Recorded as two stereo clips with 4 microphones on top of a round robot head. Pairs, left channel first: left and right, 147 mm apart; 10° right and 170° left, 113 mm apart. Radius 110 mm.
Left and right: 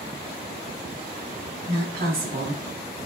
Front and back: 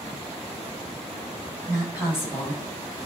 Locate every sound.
1.7 s a woman speaking: 110° right, 7.5 m